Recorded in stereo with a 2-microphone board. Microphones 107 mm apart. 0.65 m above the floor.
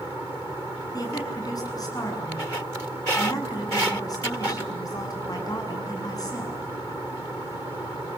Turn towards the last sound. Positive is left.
turn(degrees=35)  # may be behind; listen again after turning